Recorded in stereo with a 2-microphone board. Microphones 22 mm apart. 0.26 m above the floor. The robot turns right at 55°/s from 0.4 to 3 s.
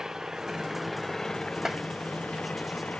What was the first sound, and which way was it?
An engine running, 25° right.